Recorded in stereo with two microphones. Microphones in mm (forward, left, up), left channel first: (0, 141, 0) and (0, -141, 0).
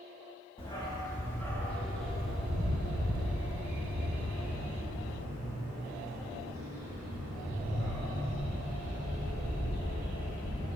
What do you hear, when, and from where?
0.6 s a dog barking: 20° left (ahead or behind), 1.2 m; by 10.8 s 15° right (ahead or behind), 7 m